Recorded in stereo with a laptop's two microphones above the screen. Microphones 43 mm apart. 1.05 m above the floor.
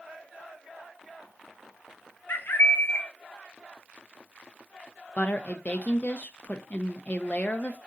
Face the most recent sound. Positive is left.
turn(degrees=35)  # may be behind; listen again after turning